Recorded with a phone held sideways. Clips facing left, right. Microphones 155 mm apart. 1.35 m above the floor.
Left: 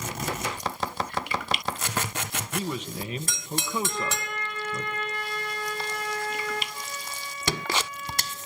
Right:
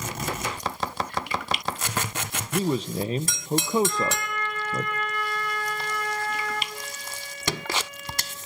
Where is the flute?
70° right (ahead or behind), 4 m.